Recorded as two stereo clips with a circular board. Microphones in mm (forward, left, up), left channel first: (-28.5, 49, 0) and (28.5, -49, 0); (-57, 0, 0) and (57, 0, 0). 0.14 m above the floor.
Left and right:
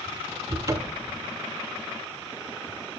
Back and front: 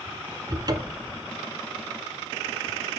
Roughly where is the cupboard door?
Ahead.